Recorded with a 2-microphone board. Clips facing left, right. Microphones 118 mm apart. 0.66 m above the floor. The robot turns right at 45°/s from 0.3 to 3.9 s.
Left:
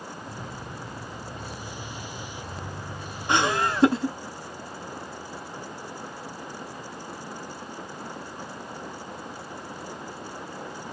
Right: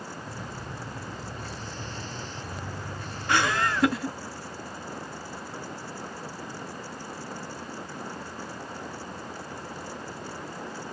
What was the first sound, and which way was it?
Laughter, 20° left (ahead or behind).